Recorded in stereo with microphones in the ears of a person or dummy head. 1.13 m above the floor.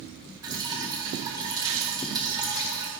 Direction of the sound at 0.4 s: 20° right (ahead or behind).